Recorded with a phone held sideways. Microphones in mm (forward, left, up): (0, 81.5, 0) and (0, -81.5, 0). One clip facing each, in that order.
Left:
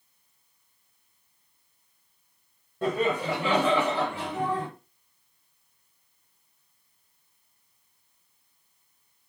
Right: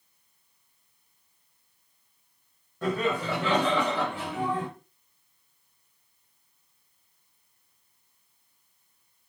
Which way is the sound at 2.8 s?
30° left (ahead or behind).